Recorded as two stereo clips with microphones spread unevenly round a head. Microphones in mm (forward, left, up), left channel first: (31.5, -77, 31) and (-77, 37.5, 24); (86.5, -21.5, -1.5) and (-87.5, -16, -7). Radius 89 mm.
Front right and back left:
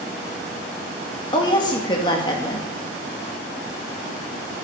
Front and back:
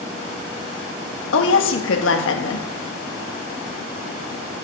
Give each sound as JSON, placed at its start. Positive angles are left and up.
{"t": 1.3, "sound": "a woman speaking", "azimuth_deg": 20, "distance_m": 1.5}